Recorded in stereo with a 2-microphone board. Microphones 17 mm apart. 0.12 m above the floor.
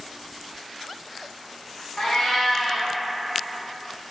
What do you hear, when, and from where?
2.0 s a cat meowing: 50° left (ahead or behind), 0.8 m